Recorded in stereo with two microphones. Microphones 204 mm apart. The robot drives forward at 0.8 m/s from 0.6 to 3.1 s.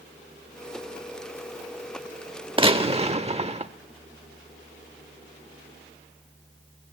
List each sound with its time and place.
2.6 s a gunshot: 25° right (ahead or behind), 1.0 m; by 3.7 s 30° right (ahead or behind), 0.9 m